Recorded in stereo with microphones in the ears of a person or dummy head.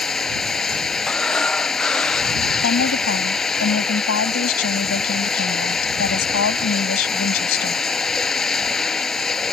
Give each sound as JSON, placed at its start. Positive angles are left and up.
{"t": 0.0, "sound": "running water", "side_deg": 0}
{"t": 1.1, "sound": "breathing", "side_deg": -5}
{"t": 2.6, "sound": "a woman speaking", "side_deg": 75}